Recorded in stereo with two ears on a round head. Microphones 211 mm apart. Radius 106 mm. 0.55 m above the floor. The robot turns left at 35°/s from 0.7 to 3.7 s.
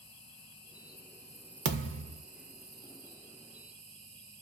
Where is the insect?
25° left, 1.7 m; by 4.4 s 80° right, 1.7 m.